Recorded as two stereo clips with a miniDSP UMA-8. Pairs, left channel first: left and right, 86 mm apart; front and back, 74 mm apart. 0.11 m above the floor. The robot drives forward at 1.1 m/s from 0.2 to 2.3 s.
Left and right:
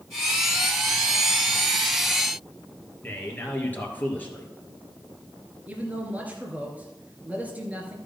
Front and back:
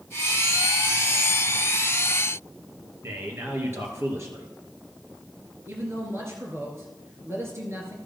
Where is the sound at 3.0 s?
150° left, 2 m.